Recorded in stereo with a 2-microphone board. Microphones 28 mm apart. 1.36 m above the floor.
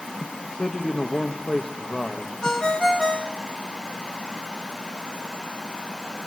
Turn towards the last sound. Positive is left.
turn(degrees=25)  # may be behind; listen again after turning